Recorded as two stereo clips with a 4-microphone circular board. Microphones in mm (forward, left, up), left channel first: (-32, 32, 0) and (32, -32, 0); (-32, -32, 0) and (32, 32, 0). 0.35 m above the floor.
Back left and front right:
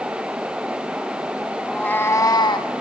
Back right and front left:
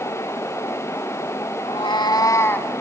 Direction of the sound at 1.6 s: 145° right.